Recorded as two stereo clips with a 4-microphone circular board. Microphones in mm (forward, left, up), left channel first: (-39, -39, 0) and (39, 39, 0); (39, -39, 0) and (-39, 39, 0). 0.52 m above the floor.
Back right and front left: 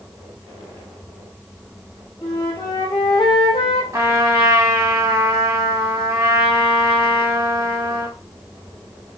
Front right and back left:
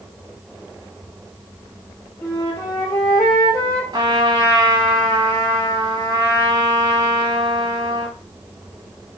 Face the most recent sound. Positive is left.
turn(degrees=105)